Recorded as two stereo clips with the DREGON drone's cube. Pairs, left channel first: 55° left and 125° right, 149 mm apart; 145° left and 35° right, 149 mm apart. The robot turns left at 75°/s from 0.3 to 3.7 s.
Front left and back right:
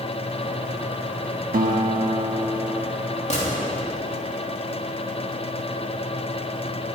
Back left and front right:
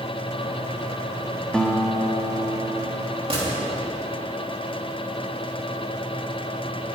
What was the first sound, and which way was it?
A guitar, 130° right.